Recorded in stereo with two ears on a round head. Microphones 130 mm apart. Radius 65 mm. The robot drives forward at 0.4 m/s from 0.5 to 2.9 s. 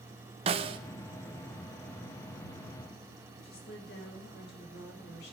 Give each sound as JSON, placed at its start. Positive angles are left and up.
{"t": 0.5, "sound": "a snare drum", "side_deg": -40, "distance_m": 0.9}
{"t": 3.4, "sound": "a woman speaking", "side_deg": 80, "distance_m": 3.5}